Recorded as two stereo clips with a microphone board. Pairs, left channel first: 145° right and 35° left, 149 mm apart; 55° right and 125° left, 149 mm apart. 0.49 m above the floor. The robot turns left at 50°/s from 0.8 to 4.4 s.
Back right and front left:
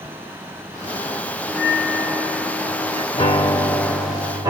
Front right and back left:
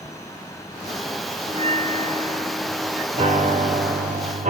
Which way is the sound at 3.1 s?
160° left.